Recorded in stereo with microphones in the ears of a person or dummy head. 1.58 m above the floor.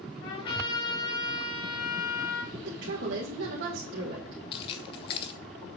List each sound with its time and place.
0.2 s a trumpet: 30° left (ahead or behind), 1.9 m
2.5 s a woman speaking: 70° right (ahead or behind), 2 m
4.5 s keys jangling: 30° left (ahead or behind), 0.6 m